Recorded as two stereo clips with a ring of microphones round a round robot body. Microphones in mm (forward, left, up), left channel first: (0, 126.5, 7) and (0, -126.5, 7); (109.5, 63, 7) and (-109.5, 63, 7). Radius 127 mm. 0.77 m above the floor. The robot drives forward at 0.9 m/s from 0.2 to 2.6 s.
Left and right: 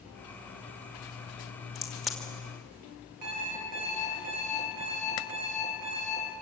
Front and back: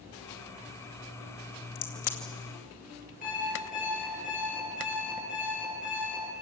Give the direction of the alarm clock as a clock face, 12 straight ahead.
2 o'clock.